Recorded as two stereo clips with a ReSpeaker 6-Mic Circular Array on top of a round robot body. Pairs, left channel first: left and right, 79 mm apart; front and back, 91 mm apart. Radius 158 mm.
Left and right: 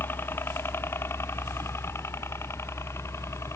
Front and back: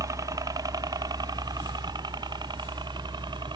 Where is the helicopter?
145° left.